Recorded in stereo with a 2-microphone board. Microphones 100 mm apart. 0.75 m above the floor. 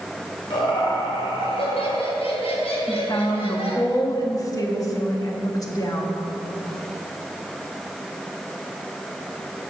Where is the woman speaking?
35° left (ahead or behind), 1.3 m.